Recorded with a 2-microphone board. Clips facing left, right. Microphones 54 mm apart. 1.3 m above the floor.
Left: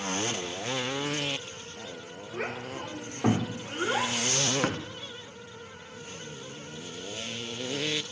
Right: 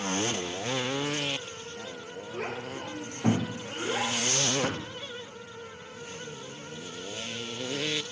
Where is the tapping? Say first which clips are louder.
Left 2 dB; 55° left (ahead or behind), 1.1 m.